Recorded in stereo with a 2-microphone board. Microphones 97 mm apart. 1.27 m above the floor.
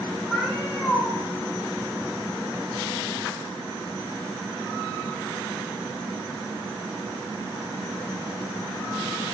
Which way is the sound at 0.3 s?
20° left (ahead or behind).